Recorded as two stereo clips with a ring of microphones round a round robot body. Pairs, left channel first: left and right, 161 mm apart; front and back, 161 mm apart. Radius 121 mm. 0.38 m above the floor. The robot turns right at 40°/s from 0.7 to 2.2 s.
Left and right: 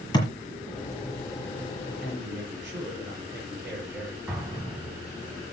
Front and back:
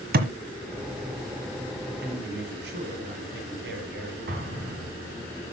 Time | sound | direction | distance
0.1 | a thud | 160° left | 1.4 m
2.0 | a man speaking | straight behind | 7 m
4.3 | an explosion | 170° right | 2.5 m